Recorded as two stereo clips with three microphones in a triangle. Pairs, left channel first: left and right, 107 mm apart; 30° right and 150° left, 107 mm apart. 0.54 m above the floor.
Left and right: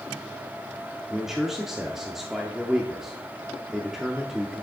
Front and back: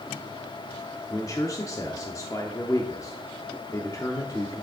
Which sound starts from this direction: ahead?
A man speaking, at 1.1 s.